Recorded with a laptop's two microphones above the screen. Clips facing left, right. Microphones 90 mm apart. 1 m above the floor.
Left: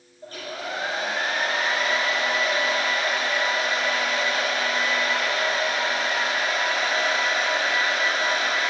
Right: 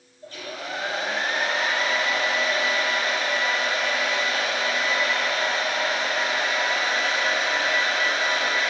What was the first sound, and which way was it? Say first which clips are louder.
A hair dryer: left 1 dB; 45° left (ahead or behind).